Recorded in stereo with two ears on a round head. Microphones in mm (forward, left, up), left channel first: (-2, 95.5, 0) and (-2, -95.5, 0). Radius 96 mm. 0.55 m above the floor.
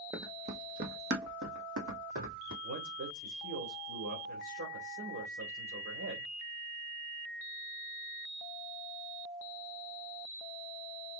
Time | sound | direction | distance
0.1 | running footsteps | 15° right (ahead or behind) | 1.0 m
2.6 | a man speaking | 70° right (ahead or behind) | 1.9 m